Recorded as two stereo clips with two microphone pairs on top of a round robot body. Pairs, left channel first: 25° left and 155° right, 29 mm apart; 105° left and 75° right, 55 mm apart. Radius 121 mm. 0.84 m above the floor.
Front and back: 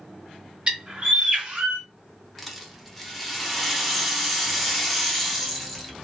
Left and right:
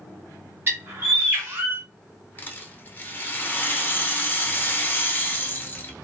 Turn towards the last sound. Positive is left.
turn(degrees=110)